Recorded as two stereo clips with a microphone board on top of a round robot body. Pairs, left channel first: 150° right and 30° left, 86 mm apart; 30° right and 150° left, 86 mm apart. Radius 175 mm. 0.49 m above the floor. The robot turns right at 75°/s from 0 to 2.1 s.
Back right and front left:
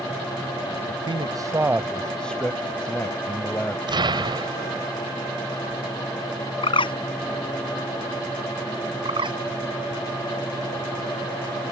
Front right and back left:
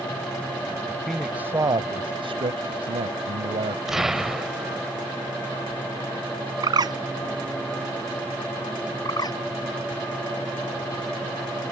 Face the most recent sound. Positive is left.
turn(degrees=10)